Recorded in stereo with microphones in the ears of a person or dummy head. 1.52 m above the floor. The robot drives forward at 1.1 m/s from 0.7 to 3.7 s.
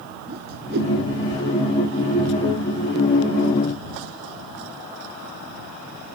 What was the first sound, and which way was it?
A whoosh, 55° right (ahead or behind).